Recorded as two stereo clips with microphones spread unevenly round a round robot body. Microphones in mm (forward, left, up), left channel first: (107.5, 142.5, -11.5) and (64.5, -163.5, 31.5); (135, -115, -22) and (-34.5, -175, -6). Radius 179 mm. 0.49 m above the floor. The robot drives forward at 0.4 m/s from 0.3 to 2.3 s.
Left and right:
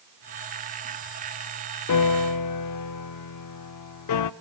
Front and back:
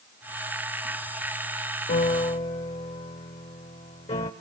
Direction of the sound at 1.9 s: 60° left.